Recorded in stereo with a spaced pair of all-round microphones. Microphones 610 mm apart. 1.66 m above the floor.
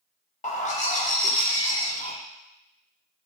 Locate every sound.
0.4 s a bird: 15° left (ahead or behind), 0.6 m